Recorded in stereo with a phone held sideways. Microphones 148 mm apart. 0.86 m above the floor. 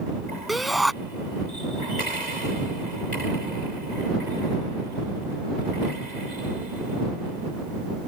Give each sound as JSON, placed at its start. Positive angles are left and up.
{"t": 0.5, "sound": "a shout", "side_deg": 0}